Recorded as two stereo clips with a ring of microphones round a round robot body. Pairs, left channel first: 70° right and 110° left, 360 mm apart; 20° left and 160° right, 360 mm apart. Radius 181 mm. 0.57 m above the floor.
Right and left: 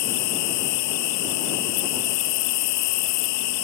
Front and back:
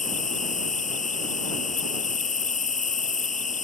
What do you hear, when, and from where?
0.0 s an insect: 50° right